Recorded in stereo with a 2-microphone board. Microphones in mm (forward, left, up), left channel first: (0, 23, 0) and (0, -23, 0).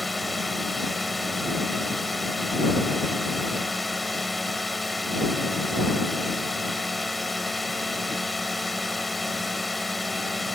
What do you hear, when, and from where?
0.0 s a drone: centre (ahead or behind)